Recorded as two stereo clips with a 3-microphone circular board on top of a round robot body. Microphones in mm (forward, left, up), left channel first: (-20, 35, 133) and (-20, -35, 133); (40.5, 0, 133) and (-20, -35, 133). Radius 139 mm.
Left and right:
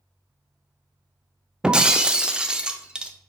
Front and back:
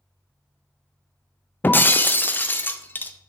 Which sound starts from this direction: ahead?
Breaking glass, at 1.6 s.